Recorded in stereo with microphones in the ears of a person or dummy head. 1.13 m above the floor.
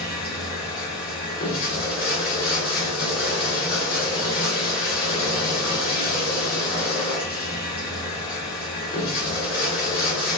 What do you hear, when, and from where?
0.0 s running water: 50° left (ahead or behind), 2 m